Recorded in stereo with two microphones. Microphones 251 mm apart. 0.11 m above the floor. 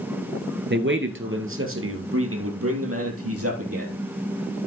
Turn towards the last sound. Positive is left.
turn(degrees=-70)  # may be behind; listen again after turning